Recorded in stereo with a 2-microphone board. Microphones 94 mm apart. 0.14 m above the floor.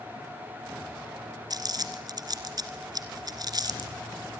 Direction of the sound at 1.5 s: 45° right (ahead or behind).